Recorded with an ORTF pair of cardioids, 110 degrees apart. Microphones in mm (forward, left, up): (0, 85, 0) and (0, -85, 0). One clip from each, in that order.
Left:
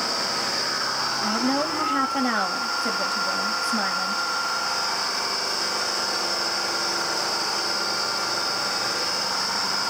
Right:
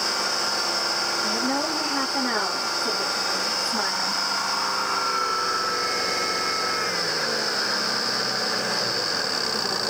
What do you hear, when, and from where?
1.2 s a woman speaking: 40° left, 3.5 m